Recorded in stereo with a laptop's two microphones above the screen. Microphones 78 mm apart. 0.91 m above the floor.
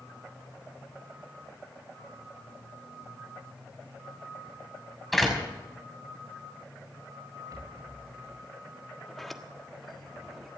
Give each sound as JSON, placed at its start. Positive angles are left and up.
{"t": 5.1, "sound": "a door slam", "side_deg": 0, "distance_m": 6.0}
{"t": 7.5, "sound": "a rattle", "side_deg": -55, "distance_m": 4.5}
{"t": 9.1, "sound": "a sliding door", "side_deg": 5, "distance_m": 1.4}